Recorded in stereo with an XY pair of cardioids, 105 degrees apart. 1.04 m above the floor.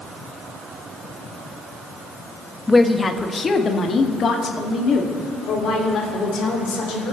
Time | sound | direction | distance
2.7 | a woman speaking | 15° left | 1.1 m